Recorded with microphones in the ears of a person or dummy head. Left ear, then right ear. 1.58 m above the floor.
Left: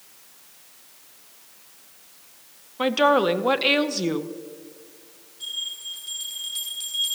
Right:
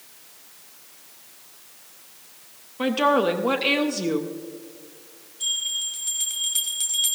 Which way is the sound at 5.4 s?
20° right (ahead or behind).